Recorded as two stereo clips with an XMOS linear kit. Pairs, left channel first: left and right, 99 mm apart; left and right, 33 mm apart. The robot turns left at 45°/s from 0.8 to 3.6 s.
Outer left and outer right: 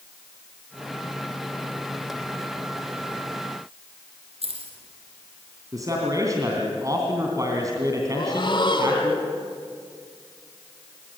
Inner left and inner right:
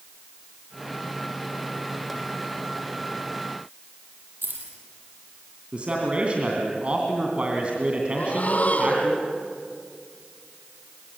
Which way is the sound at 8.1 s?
55° left (ahead or behind).